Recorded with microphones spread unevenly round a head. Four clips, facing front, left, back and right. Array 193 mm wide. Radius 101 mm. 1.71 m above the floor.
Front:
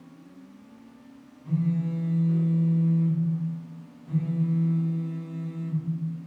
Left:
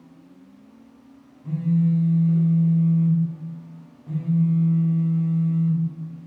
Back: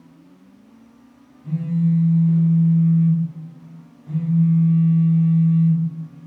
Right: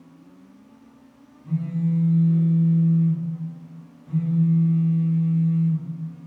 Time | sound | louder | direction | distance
1.4 | a phone buzzing | left 3 dB, back 6 dB | 115° left | 0.8 m